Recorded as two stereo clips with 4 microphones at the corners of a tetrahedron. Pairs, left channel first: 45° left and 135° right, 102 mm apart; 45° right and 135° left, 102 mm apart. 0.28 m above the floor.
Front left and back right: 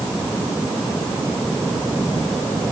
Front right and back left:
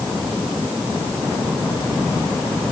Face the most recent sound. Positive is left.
No sound to turn to.